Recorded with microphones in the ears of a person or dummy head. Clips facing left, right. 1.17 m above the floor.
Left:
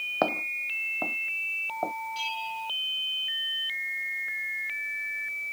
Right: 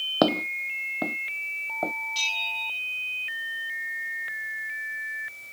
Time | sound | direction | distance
0.2 | footsteps | 45° right (ahead or behind) | ?
2.1 | a bell | 50° right (ahead or behind) | ?